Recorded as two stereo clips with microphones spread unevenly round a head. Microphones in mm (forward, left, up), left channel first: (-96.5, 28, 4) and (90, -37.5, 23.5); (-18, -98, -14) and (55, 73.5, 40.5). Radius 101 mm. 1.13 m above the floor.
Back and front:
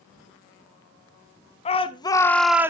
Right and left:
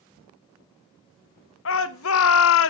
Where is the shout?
140° right, 1.1 m; by 2.7 s 95° right, 0.7 m.